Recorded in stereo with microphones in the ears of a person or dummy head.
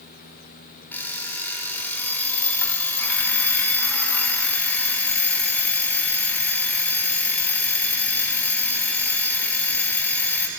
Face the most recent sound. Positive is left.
turn(degrees=10)  # may be behind; listen again after turning